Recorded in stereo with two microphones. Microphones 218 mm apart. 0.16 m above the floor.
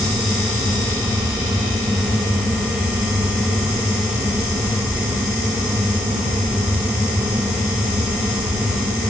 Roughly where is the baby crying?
No baby crying in this recording.